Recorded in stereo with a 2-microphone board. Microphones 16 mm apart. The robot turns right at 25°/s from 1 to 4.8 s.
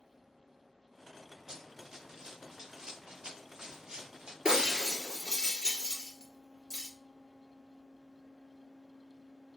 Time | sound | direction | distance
1.5 | running footsteps | 30° right (ahead or behind) | 2 m
4.5 | breaking glass | 45° right (ahead or behind) | 1.7 m